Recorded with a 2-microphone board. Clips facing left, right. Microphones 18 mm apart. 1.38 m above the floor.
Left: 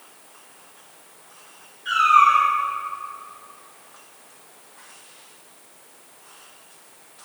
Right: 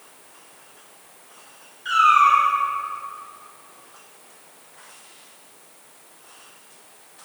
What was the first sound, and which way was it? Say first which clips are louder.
A cat meowing: even; 35° right (ahead or behind).